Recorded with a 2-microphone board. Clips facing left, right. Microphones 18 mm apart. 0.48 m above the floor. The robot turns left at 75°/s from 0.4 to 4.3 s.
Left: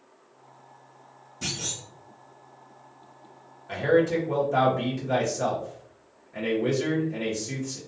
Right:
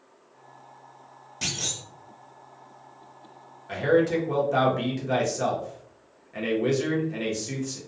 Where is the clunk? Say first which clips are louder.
Right 2 dB; 70° right, 1.0 m; by 1.8 s 100° right, 1.0 m.